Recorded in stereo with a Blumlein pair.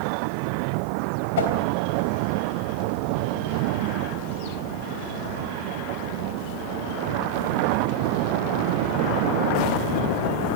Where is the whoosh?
60° left, 3.5 m.